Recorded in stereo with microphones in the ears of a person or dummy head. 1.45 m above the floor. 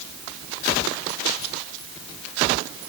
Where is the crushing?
No crushing in this recording.